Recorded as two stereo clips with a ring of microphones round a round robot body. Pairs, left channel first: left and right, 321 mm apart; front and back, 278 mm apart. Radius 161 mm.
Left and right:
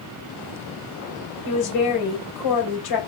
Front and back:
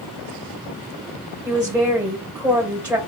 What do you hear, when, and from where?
1.4 s a woman speaking: 95° left, 2 m